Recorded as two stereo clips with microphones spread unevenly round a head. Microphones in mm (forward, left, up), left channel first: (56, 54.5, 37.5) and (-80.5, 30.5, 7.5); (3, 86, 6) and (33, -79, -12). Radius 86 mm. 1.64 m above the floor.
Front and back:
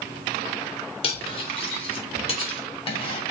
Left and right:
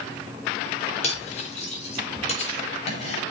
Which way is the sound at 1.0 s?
50° left.